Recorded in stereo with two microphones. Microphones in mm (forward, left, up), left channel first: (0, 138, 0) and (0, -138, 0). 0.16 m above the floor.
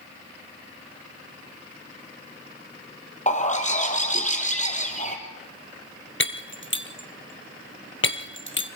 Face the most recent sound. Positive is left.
turn(degrees=45)  # may be behind; listen again after turning